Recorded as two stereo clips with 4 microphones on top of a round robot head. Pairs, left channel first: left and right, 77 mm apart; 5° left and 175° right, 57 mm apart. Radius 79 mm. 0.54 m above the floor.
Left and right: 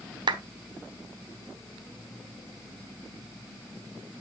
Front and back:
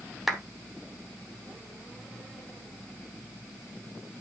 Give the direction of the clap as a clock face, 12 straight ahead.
3 o'clock.